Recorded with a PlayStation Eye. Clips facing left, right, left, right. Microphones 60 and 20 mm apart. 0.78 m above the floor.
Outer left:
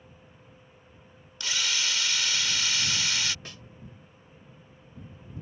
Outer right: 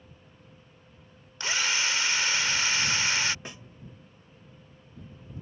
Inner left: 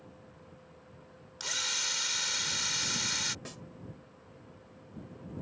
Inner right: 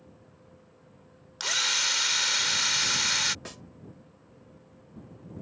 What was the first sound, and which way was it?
A drill, 30° right (ahead or behind).